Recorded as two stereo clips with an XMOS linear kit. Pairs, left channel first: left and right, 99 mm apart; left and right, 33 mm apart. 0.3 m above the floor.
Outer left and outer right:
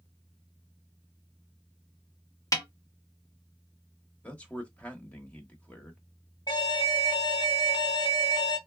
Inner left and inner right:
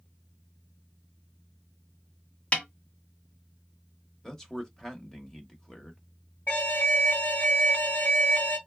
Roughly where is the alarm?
Left.